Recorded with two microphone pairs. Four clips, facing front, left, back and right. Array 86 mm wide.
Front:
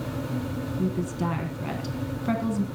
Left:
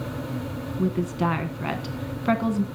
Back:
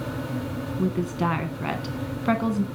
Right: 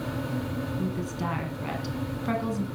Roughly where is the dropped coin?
No dropped coin in this recording.